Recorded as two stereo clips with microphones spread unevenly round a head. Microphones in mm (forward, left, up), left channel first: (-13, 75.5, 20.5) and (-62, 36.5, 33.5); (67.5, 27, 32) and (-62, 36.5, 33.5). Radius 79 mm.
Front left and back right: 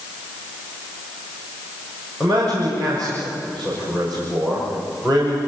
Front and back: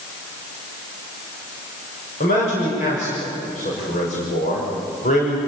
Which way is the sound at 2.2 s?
45° right.